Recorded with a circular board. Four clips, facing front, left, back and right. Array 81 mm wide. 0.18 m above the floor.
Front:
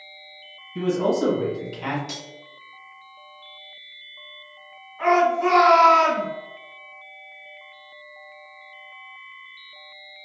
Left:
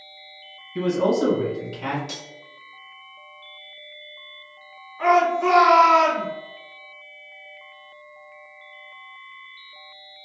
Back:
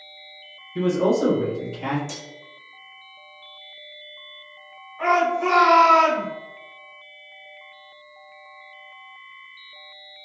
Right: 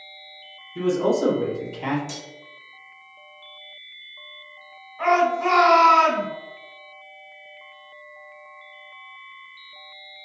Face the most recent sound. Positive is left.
turn(degrees=-85)